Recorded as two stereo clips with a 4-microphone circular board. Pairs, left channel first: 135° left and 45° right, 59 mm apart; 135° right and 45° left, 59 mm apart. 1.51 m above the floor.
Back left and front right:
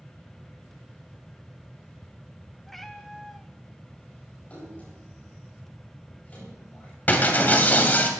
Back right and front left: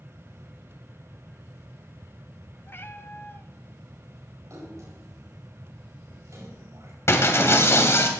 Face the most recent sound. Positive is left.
turn(degrees=-170)